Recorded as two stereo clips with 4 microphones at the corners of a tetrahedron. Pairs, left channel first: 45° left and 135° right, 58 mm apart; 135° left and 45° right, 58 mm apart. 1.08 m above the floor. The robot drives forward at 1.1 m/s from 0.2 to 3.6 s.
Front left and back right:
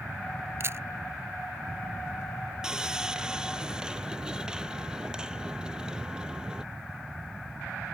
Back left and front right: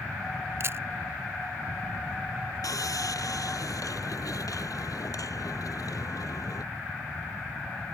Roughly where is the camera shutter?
Right.